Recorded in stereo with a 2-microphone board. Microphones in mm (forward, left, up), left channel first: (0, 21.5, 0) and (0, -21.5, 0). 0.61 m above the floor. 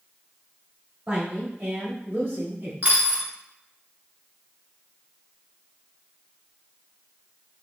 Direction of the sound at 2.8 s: 35° right (ahead or behind).